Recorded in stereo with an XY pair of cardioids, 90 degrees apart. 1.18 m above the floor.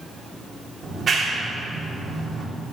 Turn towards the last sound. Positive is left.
turn(degrees=-40)